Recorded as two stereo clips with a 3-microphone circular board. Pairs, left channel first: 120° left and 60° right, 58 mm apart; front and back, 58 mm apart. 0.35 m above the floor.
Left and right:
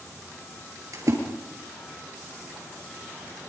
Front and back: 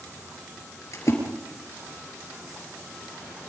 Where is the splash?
35° right, 5.5 m.